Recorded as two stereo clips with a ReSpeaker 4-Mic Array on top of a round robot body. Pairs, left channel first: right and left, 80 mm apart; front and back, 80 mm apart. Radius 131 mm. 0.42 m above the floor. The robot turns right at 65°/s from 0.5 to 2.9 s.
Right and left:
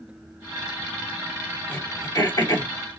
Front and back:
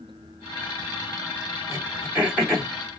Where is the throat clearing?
150° right, 2 m; by 2.7 s 85° right, 2 m.